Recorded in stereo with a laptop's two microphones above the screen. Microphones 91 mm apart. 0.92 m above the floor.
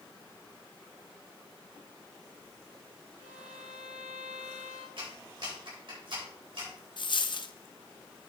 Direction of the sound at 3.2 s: 25° right (ahead or behind).